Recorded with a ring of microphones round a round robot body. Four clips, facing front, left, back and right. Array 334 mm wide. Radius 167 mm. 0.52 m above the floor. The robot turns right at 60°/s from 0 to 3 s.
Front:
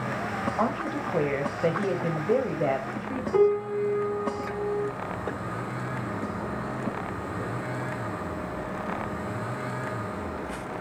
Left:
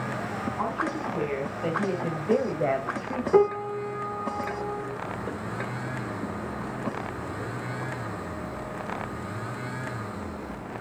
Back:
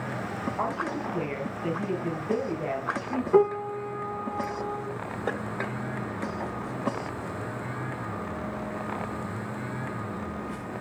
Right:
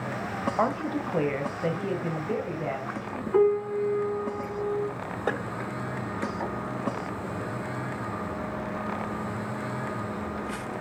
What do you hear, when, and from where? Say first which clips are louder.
0.6 s a woman speaking: right 3 dB, front 2 dB; 70° right, 2.5 m; by 3.2 s 75° left, 2.5 m
3.3 s a piano: even, front 1 dB; 115° left, 2.5 m